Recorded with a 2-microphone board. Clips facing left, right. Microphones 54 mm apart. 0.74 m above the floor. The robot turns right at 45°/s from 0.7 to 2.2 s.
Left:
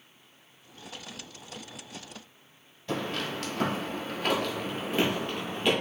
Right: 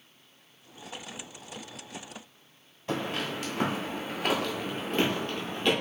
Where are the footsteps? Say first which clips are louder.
Even; 25° right (ahead or behind), 1.0 m; by 5.7 s 15° left (ahead or behind), 1.0 m.